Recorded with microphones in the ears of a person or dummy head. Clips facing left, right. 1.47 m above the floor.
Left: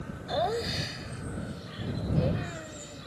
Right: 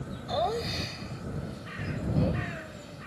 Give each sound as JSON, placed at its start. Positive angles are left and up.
{"t": 0.3, "sound": "laughter", "side_deg": 10}